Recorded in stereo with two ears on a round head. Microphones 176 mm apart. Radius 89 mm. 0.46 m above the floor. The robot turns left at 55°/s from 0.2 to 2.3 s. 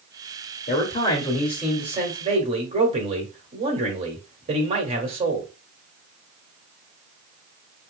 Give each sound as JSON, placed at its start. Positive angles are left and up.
{"t": 0.7, "sound": "a man speaking", "azimuth_deg": 55, "distance_m": 1.6}